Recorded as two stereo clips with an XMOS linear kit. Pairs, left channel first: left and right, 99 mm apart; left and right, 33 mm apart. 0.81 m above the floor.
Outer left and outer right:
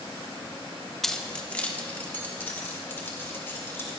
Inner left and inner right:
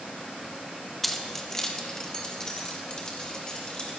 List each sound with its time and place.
1.0 s keys jangling: 5° left (ahead or behind), 0.8 m; by 3.9 s 25° left (ahead or behind), 3 m